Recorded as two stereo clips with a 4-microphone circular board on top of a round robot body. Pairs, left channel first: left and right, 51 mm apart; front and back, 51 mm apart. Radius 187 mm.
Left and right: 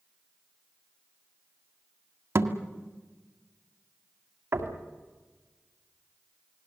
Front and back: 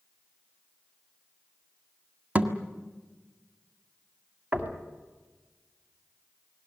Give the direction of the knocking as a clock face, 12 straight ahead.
4 o'clock.